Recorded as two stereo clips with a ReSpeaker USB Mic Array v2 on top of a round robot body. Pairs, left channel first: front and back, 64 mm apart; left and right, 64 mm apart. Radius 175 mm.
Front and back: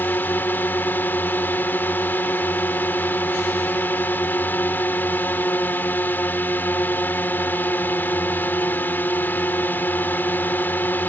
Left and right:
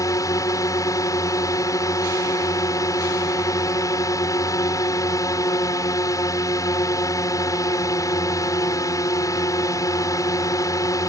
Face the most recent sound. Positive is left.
turn(degrees=60)